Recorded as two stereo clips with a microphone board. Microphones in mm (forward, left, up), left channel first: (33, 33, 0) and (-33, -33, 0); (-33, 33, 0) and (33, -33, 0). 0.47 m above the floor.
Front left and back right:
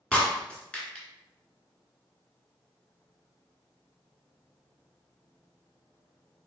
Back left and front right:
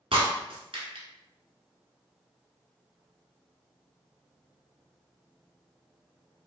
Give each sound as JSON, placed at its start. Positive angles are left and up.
{"t": 0.1, "sound": "breaking glass", "azimuth_deg": -35, "distance_m": 1.6}